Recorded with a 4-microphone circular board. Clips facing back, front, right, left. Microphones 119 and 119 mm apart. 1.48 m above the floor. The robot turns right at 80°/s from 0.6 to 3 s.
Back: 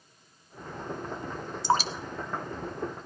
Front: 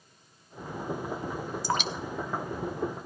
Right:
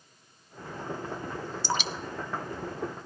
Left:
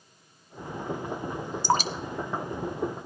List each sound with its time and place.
1.6 s dripping: 120° left, 0.6 m; by 3.1 s 130° right, 0.6 m